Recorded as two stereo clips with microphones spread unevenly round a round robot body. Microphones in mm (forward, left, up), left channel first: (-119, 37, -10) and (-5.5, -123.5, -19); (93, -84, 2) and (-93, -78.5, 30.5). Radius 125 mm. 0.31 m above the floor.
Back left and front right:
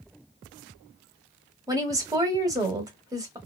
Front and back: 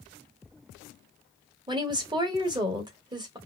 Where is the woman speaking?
115° right, 1.1 m.